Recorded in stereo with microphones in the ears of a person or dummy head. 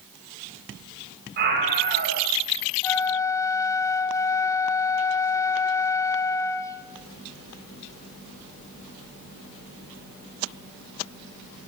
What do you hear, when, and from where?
1.4 s a scream: 55° right (ahead or behind), 9.5 m
2.8 s a flute: 15° left (ahead or behind), 1.4 m